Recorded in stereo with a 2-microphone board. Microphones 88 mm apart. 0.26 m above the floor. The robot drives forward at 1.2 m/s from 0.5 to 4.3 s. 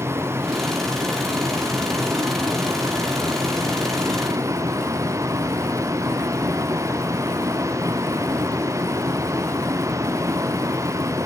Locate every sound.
0.0 s a vehicle: 30° right (ahead or behind); by 11.3 s 35° right (ahead or behind)